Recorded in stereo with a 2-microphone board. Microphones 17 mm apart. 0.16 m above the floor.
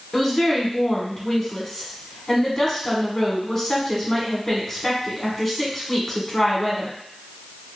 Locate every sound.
0.1 s a woman speaking: 15° left (ahead or behind), 1.2 m